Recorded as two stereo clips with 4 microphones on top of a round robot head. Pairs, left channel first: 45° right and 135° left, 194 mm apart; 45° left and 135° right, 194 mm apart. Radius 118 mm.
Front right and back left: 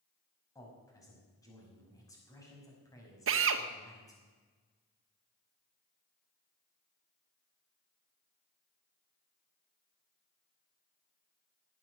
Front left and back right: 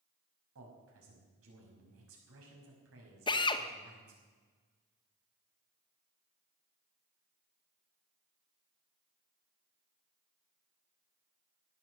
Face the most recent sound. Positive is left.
turn(degrees=115)